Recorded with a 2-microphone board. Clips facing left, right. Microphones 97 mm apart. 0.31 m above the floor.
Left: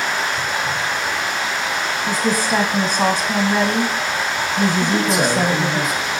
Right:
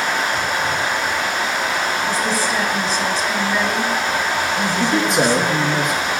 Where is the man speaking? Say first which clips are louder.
Right 1 dB; 65° right (ahead or behind), 3 m.